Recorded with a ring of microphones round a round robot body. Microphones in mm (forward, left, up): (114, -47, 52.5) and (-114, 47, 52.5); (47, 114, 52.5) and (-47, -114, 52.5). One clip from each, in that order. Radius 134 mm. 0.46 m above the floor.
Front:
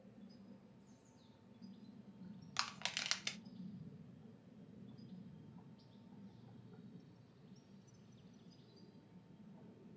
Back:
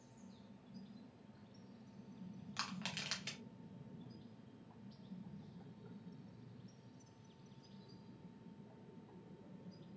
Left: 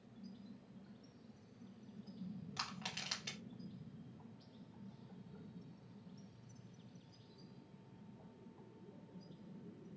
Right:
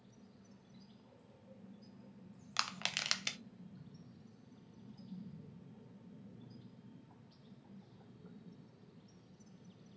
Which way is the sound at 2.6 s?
85° right.